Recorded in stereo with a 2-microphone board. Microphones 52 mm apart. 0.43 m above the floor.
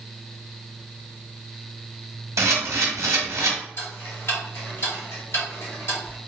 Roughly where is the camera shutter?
Right.